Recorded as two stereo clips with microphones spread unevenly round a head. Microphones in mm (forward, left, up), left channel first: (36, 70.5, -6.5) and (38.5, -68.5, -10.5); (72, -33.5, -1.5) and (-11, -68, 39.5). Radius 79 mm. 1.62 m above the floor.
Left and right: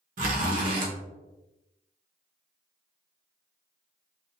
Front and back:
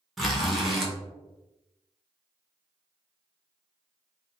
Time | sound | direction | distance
0.2 | a zipper | 85° right | 1.1 m